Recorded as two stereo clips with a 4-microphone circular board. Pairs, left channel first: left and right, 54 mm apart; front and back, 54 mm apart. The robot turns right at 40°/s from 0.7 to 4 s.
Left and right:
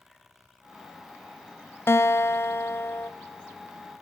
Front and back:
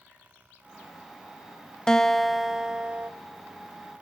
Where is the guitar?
75° left, 0.9 m; by 3.1 s 125° left, 0.9 m.